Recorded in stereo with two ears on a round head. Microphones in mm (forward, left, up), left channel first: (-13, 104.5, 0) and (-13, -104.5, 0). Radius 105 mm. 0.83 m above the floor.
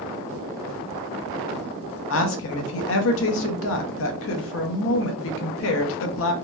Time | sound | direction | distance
2.1 | a woman speaking | 60° left (ahead or behind) | 0.7 m